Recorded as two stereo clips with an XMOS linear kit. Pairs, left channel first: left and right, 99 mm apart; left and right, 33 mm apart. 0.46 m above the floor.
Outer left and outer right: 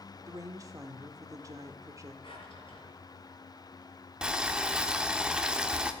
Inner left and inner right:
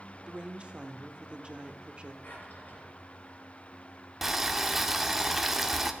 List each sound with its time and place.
0.3 s a woman speaking: 35° right (ahead or behind), 1.2 m
2.2 s a drawer: 60° left (ahead or behind), 3.5 m
4.2 s boiling: 10° right (ahead or behind), 0.9 m